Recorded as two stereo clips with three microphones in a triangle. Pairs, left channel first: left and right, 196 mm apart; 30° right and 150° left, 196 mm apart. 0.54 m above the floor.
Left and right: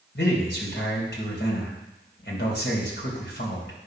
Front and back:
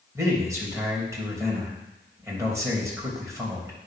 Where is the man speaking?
75° left, 3 m.